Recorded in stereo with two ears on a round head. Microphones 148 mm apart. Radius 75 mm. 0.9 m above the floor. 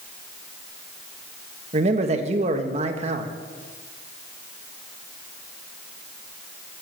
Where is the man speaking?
45° right (ahead or behind), 1.3 m.